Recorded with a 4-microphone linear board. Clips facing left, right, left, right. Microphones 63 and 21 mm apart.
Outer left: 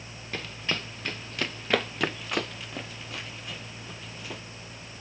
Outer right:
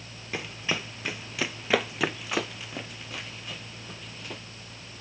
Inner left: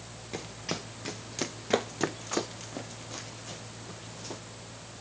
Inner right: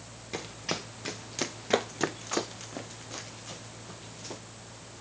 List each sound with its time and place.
0.3 s running footsteps: 10° right (ahead or behind); by 4.4 s centre (ahead or behind)